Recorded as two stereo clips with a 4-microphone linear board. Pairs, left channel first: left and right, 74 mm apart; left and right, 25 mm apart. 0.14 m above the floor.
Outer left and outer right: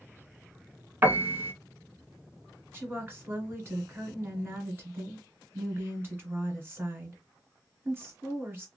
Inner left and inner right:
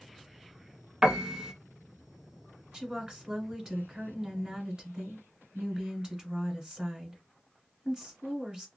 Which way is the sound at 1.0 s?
30° right (ahead or behind).